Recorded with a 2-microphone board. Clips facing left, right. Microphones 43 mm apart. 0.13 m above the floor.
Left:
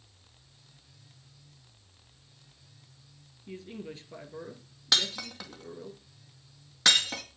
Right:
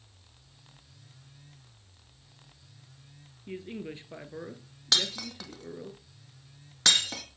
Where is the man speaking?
25° right (ahead or behind), 1.9 m.